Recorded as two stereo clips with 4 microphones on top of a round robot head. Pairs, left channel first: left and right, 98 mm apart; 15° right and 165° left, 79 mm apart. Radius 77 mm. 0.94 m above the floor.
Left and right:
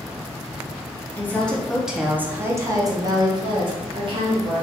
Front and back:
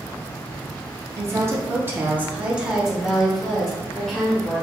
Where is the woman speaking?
145° left, 0.9 m; by 4.6 s 95° right, 1.7 m.